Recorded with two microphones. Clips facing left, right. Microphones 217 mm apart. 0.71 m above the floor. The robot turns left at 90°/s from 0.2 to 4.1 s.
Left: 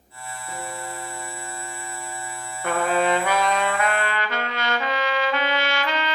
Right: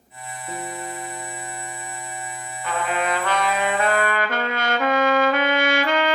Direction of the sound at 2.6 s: 70° left.